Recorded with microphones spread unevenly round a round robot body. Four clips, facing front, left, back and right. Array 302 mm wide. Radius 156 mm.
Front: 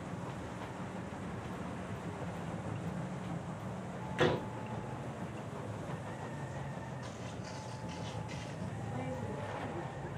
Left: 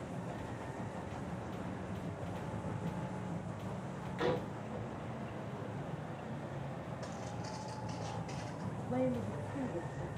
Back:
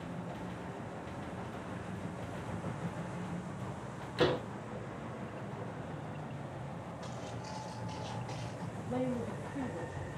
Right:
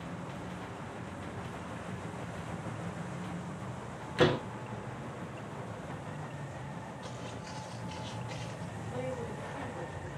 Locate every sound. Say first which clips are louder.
4.2 s a door slam: right 7 dB, back 1 dB; 90° right, 3 m
7.0 s footsteps: even, back 1 dB; 135° left, 9.5 m; by 8.6 s 130° left, 9 m
8.7 s a man speaking: left 4 dB, back 8 dB; 140° left, 9.5 m